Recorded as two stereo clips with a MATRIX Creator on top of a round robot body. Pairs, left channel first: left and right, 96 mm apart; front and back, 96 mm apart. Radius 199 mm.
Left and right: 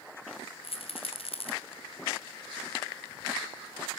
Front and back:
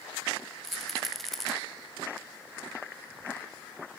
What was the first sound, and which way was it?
A rattle, 90° left.